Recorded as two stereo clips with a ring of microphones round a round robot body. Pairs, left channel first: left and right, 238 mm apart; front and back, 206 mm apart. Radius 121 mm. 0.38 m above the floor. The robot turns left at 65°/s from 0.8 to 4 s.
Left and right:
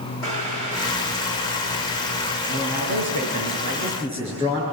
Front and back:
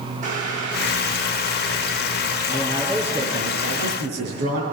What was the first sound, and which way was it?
Boiling, 130° left.